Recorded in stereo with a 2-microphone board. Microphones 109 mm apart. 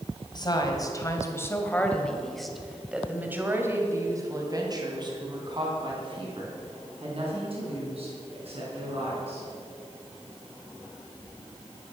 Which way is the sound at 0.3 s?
40° left (ahead or behind).